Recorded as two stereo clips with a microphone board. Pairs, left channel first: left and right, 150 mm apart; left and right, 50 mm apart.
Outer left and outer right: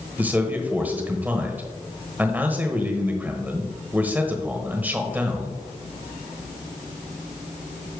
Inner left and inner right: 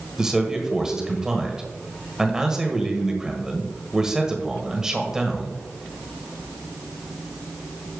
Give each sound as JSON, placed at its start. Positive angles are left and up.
{"t": 0.2, "sound": "a man speaking", "side_deg": -10, "distance_m": 1.2}